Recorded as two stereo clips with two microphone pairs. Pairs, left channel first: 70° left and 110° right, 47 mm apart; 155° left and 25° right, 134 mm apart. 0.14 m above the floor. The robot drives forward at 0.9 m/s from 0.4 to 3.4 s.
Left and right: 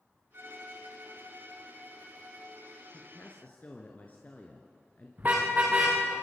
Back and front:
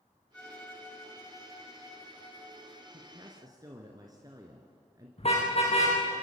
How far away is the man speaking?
About 2.5 m.